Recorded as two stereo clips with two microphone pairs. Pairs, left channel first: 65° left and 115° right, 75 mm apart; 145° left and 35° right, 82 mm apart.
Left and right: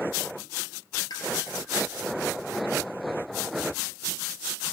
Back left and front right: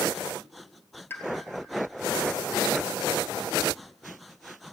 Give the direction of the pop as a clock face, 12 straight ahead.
9 o'clock.